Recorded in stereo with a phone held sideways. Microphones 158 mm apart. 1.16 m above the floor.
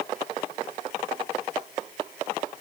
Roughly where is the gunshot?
I don't hear a gunshot.